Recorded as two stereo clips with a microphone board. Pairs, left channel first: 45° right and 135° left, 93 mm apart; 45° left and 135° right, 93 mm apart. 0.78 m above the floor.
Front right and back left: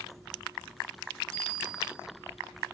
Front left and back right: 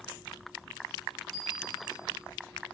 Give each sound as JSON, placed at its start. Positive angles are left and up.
{"t": 1.3, "sound": "a bicycle bell", "azimuth_deg": -50, "distance_m": 4.5}